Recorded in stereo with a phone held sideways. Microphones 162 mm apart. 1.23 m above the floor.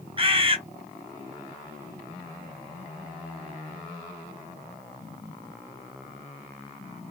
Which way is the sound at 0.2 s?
35° right (ahead or behind).